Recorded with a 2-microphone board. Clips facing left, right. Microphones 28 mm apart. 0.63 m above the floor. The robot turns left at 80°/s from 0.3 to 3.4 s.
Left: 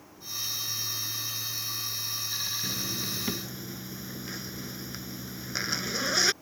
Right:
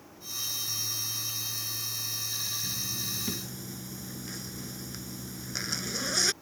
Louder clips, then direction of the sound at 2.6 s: Left 2 dB; 80° left.